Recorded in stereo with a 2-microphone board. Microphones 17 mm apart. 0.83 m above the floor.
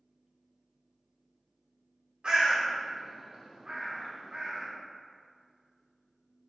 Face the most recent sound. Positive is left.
turn(degrees=-45)  # may be behind; listen again after turning